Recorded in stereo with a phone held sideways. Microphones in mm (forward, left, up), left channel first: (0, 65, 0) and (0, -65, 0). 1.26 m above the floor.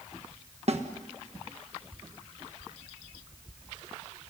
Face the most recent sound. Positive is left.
turn(degrees=-55)  # may be behind; listen again after turning